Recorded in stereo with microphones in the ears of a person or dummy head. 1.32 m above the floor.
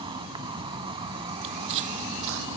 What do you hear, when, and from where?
0.0 s an insect: 30° right (ahead or behind)
1.4 s footsteps: 60° right (ahead or behind); by 2.5 s 70° right (ahead or behind)